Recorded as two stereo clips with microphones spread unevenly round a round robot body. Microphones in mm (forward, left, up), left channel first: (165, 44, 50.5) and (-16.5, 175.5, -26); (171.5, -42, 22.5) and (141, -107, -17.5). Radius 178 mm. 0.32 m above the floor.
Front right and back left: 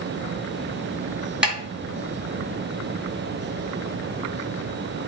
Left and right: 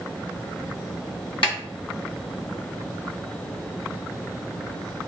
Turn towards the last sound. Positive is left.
turn(degrees=65)